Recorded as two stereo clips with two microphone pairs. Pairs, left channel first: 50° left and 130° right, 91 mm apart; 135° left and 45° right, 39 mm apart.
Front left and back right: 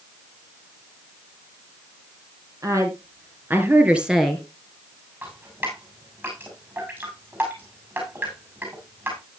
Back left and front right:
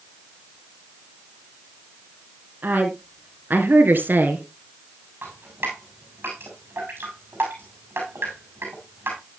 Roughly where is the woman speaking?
Right.